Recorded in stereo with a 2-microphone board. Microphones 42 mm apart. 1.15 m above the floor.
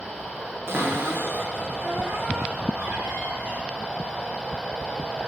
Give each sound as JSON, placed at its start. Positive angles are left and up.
{"t": 0.7, "sound": "a cupboard door", "side_deg": -70, "distance_m": 0.8}